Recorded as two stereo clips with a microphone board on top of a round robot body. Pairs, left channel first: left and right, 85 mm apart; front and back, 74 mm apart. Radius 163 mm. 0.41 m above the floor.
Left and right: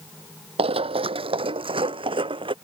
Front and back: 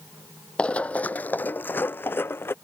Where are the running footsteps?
75° right; by 2.5 s 60° right.